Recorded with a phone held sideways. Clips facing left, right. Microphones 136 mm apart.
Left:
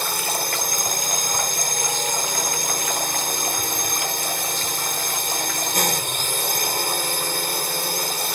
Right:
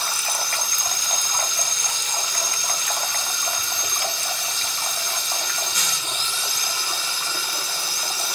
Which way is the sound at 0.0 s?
50° left (ahead or behind).